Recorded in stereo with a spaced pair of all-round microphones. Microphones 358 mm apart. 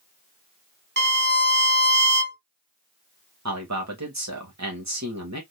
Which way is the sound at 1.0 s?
30° right (ahead or behind).